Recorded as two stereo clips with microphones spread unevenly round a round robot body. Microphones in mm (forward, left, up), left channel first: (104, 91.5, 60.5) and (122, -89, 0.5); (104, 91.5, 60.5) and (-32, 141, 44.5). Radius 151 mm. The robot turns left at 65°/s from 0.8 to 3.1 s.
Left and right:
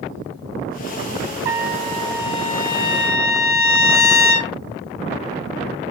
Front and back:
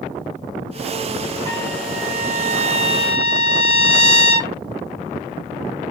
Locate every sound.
1.4 s a trumpet: 135° right, 2.0 m; by 4.5 s 115° left, 2.0 m